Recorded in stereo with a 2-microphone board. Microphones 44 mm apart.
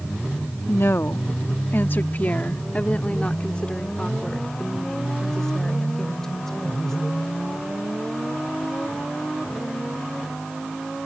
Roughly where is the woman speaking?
Left.